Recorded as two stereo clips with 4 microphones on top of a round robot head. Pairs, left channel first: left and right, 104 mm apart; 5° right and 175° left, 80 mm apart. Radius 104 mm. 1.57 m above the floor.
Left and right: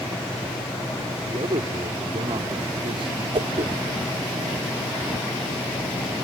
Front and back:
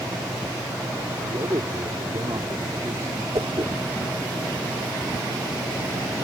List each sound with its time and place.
1.2 s a man speaking: 125° right
3.3 s a whoosh: 125° right